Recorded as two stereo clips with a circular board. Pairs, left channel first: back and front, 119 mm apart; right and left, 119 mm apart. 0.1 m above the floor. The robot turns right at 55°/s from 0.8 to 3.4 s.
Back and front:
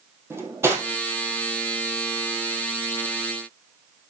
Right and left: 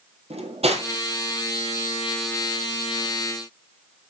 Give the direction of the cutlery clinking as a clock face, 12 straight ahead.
10 o'clock.